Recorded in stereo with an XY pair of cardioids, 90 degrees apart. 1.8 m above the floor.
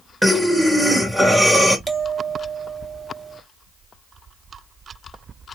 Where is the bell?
5° right, 1.6 m.